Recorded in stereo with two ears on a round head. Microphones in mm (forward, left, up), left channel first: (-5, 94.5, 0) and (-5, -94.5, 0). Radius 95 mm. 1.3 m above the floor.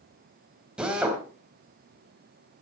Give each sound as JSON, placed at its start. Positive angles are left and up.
{"t": 0.8, "sound": "a drill", "side_deg": -5, "distance_m": 3.0}